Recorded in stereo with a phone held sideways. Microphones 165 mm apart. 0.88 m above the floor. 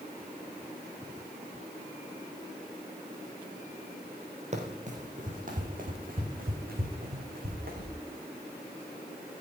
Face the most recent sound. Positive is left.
turn(degrees=-65)  # may be behind; listen again after turning